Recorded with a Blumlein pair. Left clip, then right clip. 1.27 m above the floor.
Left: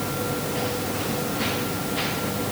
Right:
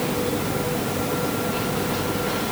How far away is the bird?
I don't hear a bird.